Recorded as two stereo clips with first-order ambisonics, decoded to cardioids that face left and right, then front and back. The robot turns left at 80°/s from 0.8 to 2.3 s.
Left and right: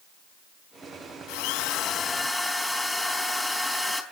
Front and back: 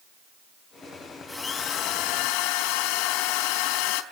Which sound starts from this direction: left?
A drill, at 1.3 s.